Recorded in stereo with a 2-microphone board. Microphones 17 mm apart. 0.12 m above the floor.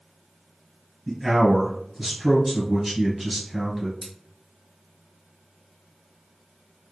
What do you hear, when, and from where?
1.1 s a man speaking: 15° right (ahead or behind), 1.2 m
4.0 s scissors: 25° left (ahead or behind), 1.8 m